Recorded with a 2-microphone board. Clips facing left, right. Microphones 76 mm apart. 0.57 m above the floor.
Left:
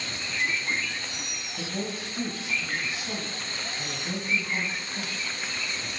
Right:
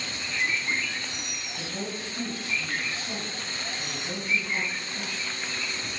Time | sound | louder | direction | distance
1.6 | a woman speaking | left 2 dB | 10° left (ahead or behind) | 3.5 m